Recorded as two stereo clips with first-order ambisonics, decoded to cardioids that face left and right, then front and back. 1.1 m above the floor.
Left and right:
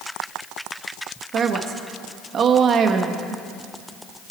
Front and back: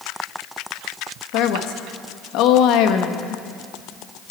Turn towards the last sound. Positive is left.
turn(degrees=-30)